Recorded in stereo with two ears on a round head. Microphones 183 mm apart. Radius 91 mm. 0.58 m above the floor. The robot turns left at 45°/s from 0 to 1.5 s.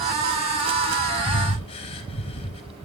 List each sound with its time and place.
1.3 s breathing: 35° left (ahead or behind), 1.4 m; by 2.6 s 25° left (ahead or behind), 1.4 m